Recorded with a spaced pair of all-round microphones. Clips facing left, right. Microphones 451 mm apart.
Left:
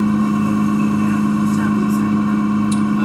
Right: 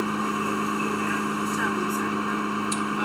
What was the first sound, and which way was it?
A vehicle, 60° left (ahead or behind).